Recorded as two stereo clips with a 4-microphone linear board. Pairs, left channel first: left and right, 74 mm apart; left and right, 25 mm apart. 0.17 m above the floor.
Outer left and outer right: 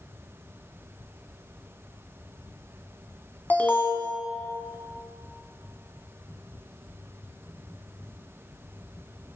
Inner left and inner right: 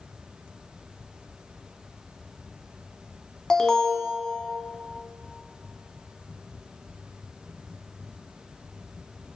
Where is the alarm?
25° left (ahead or behind), 0.8 m.